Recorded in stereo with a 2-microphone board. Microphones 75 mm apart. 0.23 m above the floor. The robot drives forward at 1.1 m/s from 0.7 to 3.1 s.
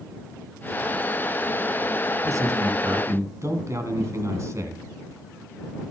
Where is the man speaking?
50° right (ahead or behind), 2 m; by 4.8 s 45° right (ahead or behind), 2.5 m.